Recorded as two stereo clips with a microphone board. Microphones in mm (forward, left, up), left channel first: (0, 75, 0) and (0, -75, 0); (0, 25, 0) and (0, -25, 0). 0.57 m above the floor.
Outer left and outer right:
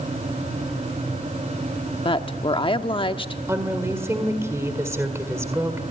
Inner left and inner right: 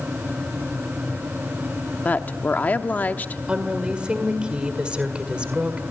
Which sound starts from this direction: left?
A woman speaking, at 2.0 s.